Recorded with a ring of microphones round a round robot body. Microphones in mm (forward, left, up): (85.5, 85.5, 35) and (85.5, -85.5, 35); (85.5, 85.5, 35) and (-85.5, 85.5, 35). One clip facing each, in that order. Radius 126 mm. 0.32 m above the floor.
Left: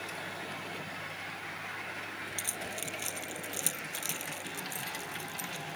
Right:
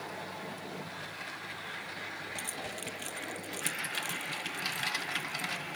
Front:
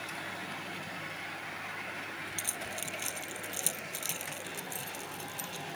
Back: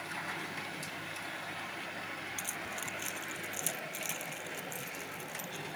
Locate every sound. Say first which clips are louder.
2.4 s keys jangling: even, front 1 dB; 50° left